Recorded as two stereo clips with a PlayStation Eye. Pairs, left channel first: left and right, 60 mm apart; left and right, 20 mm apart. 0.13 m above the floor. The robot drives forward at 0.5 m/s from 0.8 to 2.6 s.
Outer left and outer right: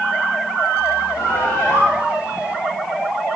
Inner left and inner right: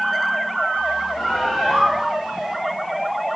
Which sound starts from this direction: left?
A bird, at 1.2 s.